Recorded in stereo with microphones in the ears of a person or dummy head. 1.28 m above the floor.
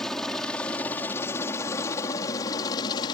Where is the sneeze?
No sneeze in this recording.